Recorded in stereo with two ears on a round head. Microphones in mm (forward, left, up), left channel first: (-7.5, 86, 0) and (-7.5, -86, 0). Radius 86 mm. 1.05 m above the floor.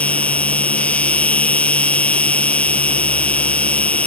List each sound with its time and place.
0.0 s an insect: 5° left (ahead or behind)